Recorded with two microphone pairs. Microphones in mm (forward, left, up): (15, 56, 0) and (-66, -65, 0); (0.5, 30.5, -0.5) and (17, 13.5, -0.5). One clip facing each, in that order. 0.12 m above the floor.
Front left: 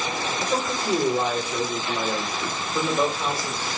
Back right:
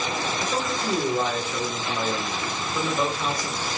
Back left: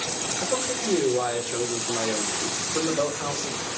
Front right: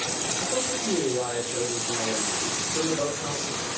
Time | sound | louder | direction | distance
0.4 | a man speaking | front left 3 dB, back left 3 dB | 130° left | 7 m